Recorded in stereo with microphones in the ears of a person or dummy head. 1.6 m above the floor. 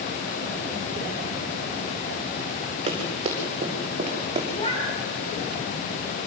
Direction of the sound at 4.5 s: 30° left (ahead or behind).